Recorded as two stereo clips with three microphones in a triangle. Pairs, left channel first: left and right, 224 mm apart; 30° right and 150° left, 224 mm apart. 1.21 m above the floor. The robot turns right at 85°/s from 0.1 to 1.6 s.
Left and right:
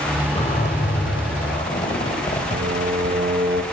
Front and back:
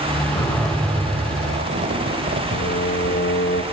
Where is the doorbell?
No doorbell in this recording.